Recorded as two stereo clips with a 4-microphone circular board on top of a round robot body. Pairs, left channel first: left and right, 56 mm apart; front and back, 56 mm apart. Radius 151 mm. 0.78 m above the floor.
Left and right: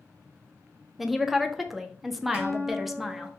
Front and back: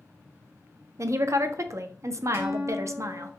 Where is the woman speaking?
175° right, 0.5 m.